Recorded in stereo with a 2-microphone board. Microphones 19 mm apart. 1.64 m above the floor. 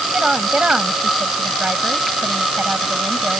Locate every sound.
0.1 s a woman speaking: 80° right; by 3.4 s 90° right